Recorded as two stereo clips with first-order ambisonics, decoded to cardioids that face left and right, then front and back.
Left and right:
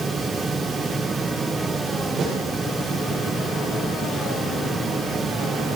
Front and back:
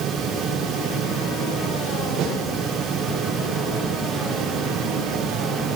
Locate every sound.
2.2 s a snare drum: 145° right, 8.5 m